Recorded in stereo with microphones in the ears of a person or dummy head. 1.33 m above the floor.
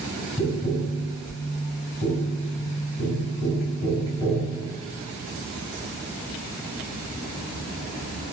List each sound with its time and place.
0.4 s tapping: 15° left (ahead or behind), 1.6 m